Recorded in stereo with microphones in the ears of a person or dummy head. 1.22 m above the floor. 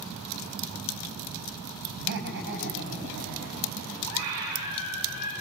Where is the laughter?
60° right (ahead or behind), 7 m; by 4.0 s 50° right (ahead or behind), 8.5 m.